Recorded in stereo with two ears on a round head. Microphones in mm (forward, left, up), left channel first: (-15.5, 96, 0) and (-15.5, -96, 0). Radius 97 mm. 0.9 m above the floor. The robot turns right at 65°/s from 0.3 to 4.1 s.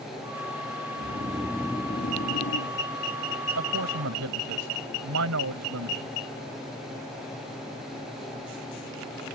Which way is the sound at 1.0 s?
35° right.